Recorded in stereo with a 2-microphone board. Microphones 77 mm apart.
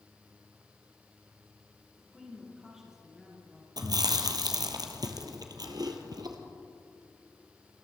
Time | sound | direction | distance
2.0 | a woman speaking | 10° right (ahead or behind) | 4.5 m
3.8 | chewing | 60° right (ahead or behind) | 1.4 m